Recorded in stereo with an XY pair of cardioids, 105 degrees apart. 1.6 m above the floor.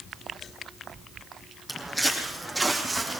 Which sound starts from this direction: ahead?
Footsteps, at 1.7 s.